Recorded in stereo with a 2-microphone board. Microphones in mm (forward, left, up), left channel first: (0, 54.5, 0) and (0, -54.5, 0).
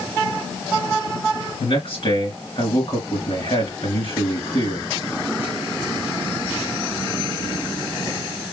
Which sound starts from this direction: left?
A man speaking, at 1.6 s.